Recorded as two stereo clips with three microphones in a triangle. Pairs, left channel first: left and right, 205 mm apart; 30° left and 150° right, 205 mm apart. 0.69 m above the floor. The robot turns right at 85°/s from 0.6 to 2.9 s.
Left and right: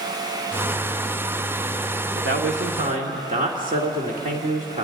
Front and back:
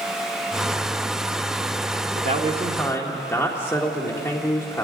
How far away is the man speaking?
About 1.6 m.